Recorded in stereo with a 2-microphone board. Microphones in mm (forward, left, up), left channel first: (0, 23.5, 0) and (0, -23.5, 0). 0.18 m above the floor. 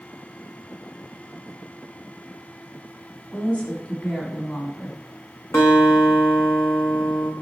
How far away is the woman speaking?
About 1.2 m.